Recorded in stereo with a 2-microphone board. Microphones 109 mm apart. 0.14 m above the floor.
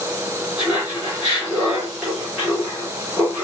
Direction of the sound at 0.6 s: 10° right (ahead or behind).